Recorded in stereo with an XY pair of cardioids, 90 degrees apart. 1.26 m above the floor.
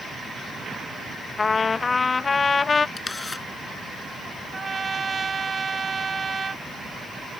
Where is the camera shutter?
25° left.